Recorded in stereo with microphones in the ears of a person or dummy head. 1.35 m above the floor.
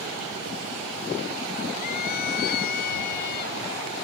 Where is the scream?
55° left (ahead or behind); by 3.6 s 60° left (ahead or behind).